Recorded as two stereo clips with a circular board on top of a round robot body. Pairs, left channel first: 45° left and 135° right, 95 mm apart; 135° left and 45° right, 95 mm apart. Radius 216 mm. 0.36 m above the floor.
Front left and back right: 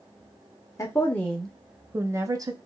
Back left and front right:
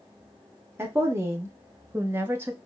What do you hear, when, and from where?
0.8 s a woman speaking: 5° left, 0.9 m; by 2.5 s 110° right, 1.0 m